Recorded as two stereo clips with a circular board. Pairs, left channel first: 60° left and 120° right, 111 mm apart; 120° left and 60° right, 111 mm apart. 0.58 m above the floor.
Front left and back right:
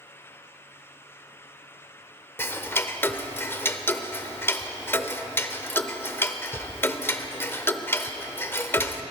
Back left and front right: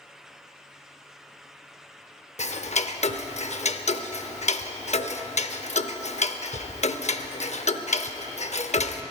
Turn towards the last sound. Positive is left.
turn(degrees=130)